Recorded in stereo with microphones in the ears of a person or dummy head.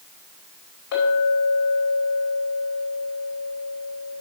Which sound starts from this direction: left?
A clink, at 0.9 s.